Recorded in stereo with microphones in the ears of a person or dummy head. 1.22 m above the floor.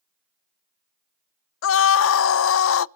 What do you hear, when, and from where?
1.6 s a scream: 75° left (ahead or behind), 0.5 m